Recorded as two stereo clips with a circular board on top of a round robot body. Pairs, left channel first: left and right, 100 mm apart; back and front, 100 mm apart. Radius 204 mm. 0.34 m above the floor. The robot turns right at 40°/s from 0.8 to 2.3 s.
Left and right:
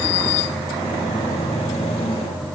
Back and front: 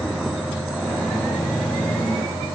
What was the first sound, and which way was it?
Only background noise.